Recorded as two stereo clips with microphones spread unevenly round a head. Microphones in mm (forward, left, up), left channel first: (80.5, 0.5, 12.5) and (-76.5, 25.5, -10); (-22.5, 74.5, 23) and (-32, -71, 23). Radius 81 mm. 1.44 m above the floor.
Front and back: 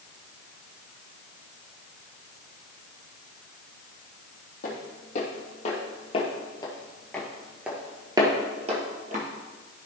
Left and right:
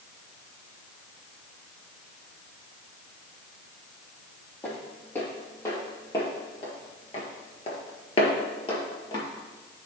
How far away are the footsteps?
About 3 m.